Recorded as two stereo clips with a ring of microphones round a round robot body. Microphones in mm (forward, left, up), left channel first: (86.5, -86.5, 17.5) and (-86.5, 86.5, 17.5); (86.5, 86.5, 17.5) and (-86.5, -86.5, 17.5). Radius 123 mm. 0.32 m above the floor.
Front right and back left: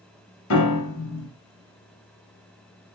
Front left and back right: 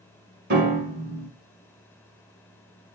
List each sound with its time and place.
0.5 s a piano: 85° right, 1.3 m